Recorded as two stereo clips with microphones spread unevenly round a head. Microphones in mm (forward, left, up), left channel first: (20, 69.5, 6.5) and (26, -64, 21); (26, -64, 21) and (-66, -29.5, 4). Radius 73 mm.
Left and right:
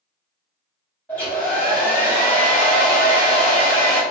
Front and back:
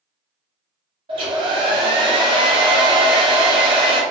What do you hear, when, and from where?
1.1 s a hair dryer: 175° left, 0.9 m